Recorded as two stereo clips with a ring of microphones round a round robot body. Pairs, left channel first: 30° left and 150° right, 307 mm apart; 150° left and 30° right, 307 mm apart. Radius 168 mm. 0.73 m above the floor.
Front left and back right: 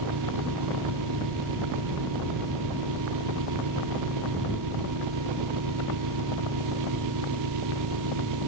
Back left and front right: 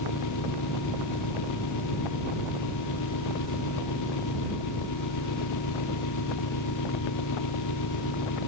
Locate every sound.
0.0 s an engine running: 175° right